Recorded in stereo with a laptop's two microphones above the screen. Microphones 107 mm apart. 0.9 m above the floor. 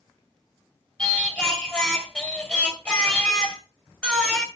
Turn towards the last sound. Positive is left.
turn(degrees=10)  # may be behind; listen again after turning